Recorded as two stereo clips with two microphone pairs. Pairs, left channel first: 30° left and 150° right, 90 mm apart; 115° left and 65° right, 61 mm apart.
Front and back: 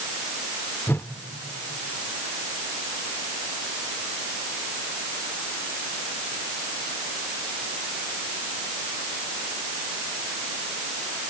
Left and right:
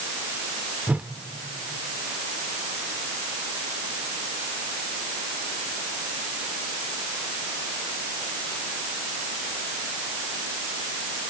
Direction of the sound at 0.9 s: 15° right.